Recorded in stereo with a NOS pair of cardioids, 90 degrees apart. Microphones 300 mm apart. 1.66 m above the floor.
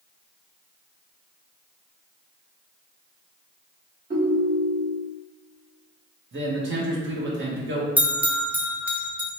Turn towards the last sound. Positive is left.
turn(degrees=-5)